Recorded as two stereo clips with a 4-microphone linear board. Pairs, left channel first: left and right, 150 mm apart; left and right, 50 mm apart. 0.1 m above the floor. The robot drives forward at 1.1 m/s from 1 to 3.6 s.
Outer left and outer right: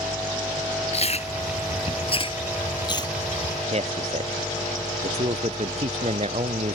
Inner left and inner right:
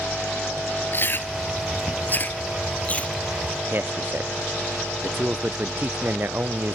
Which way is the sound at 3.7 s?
45° right (ahead or behind).